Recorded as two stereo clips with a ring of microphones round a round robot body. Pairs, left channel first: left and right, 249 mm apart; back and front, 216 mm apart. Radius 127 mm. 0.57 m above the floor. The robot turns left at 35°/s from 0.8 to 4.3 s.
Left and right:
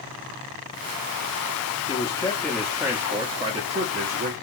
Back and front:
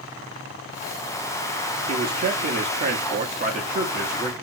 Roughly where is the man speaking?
Ahead left.